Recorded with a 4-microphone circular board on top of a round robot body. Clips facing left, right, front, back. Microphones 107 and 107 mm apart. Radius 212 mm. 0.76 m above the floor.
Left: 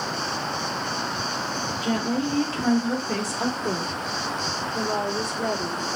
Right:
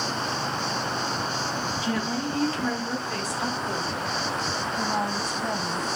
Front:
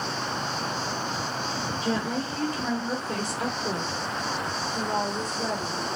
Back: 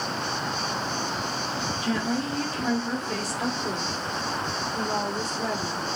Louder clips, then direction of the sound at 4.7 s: Left 2 dB, even; 70° left.